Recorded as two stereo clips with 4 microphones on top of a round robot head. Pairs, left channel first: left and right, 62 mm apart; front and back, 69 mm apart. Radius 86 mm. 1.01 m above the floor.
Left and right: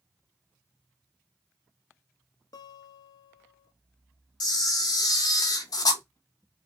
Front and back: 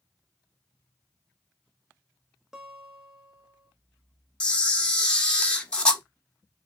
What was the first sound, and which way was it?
A guitar, 100° left.